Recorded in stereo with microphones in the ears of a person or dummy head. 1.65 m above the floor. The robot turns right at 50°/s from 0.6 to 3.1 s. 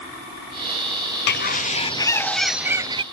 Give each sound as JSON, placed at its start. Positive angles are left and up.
{"t": 1.3, "sound": "a bird", "azimuth_deg": 120}